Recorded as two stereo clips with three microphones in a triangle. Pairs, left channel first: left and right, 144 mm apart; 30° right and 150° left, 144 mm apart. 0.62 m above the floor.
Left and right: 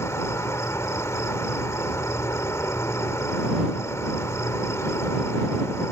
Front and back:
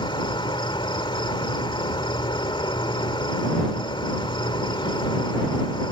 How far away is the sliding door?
I don't hear a sliding door.